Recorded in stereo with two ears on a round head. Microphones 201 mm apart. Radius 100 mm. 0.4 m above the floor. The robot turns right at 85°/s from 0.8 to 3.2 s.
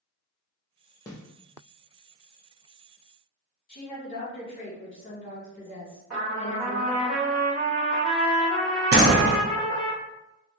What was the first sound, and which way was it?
A snare drum, 15° left (ahead or behind).